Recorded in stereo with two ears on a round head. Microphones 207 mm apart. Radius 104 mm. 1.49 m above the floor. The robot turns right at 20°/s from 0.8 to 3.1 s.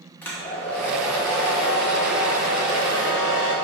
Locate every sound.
0.2 s a hair dryer: 5° left, 0.8 m; by 3.5 s 55° left, 0.8 m